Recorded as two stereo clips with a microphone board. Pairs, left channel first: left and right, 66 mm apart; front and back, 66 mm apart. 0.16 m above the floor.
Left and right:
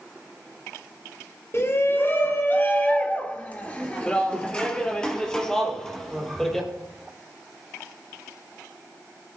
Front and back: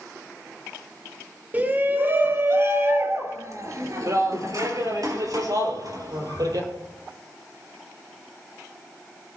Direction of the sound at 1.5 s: 125° left.